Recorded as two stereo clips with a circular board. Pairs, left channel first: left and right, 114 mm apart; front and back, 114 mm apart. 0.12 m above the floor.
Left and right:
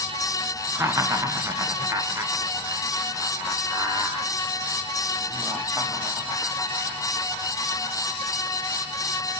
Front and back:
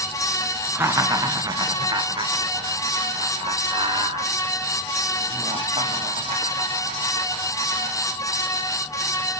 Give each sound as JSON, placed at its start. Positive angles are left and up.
{"t": 0.8, "sound": "laughter", "azimuth_deg": -135, "distance_m": 1.2}